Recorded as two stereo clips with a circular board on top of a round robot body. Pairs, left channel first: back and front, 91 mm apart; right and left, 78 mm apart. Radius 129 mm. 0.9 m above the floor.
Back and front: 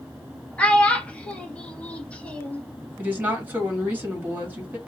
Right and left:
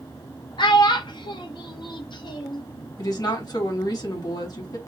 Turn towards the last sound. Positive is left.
turn(degrees=-70)